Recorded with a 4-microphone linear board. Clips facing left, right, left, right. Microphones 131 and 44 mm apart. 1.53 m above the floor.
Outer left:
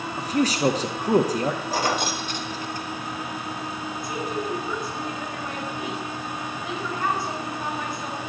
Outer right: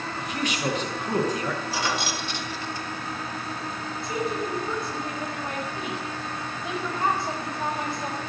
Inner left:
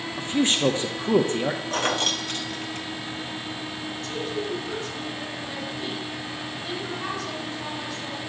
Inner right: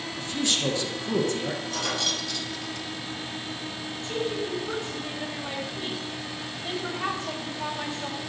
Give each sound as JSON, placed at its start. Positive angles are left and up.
{"t": 0.2, "sound": "a man speaking", "side_deg": 35, "distance_m": 0.9}
{"t": 1.7, "sound": "keys jangling", "side_deg": 45, "distance_m": 1.3}
{"t": 4.0, "sound": "a woman speaking", "side_deg": -25, "distance_m": 4.0}